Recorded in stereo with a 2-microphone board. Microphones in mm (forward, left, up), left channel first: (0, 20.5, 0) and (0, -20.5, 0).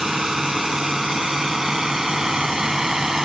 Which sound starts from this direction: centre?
A drone, at 0.0 s.